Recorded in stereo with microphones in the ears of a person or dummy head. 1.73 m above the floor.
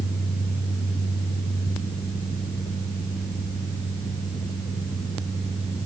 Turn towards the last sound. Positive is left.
No sound to turn to.